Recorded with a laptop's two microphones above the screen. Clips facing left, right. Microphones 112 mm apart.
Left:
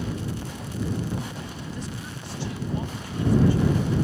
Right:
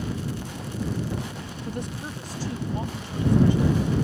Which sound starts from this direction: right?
A woman speaking, at 1.6 s.